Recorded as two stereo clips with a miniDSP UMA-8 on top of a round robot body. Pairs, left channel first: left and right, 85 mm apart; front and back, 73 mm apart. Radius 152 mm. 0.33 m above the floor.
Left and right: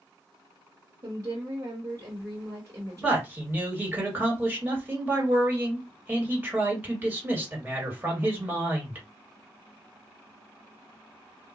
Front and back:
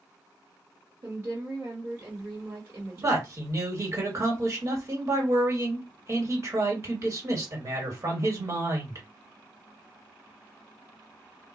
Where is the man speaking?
150° right, 2.0 m.